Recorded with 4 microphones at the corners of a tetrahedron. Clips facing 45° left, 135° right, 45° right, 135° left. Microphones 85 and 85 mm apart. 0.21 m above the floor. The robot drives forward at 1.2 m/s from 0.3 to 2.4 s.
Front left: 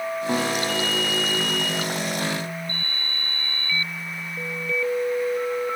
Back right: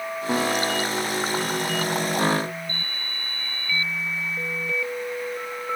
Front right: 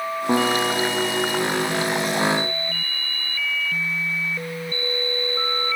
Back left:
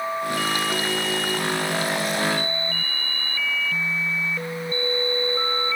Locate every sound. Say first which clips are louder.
0.3 s a guitar: back right 2 dB, front right 5 dB; 45° right; by 2.5 s 75° right